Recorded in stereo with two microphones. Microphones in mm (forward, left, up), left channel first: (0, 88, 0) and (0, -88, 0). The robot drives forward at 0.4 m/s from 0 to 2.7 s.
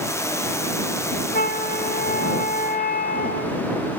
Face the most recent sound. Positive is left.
turn(degrees=70)  # may be behind; listen again after turning